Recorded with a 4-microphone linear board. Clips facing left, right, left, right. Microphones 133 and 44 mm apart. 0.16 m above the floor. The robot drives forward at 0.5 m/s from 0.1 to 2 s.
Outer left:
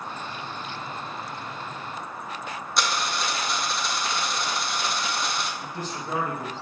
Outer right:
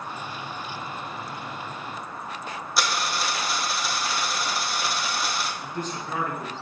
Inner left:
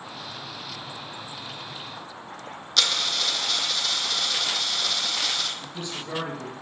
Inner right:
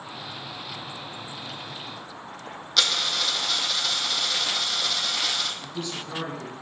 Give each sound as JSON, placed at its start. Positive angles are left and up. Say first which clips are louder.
{"t": 2.8, "sound": "a dropped coin", "louder": "even, even", "side_deg": -5, "distance_m": 1.0}
{"t": 5.6, "sound": "a man speaking", "louder": "outer right 1 dB, inner right 1 dB", "side_deg": 10, "distance_m": 1.9}